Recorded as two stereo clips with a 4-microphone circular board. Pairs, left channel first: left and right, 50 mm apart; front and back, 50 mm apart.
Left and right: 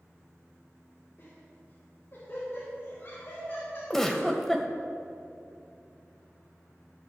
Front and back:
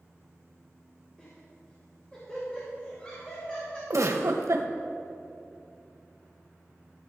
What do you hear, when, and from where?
1.2 s laughter: 65° left, 2.5 m
3.9 s a giggle: 175° left, 0.8 m